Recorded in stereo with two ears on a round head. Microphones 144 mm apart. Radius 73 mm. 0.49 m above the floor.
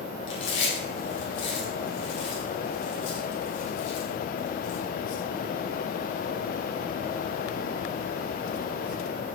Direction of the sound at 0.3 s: 85° left.